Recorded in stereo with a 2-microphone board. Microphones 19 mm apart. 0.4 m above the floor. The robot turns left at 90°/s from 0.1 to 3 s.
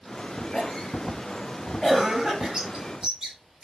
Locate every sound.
0.5 s a cough: 50° left (ahead or behind), 7 m; by 2.5 s 50° right (ahead or behind), 7 m
2.5 s a bird: 30° right (ahead or behind), 7.5 m; by 3.7 s 70° right (ahead or behind), 7.5 m